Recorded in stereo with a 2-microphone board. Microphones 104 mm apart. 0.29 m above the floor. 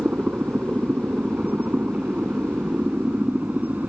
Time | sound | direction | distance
0.0 | a helicopter | 15° right (ahead or behind) | ?